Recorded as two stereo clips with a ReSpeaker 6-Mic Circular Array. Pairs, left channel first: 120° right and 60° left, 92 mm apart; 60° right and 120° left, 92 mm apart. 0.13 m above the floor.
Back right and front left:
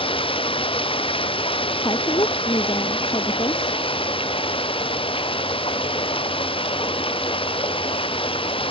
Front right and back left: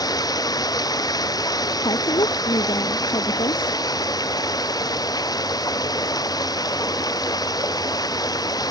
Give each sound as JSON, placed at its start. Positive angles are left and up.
{"t": 0.0, "sound": "running water", "azimuth_deg": -105}
{"t": 1.8, "sound": "a woman speaking", "azimuth_deg": -85}